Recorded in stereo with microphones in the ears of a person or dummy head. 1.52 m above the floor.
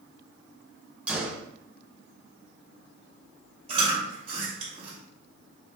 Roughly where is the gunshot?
Centre.